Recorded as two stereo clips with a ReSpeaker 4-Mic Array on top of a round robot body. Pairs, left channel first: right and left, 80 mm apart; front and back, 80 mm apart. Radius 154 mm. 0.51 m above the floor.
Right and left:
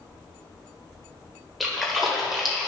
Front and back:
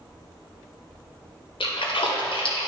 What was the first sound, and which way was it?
A splash, straight ahead.